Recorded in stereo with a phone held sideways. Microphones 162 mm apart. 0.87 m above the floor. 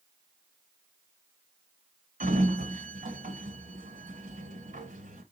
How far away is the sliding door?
About 1.2 m.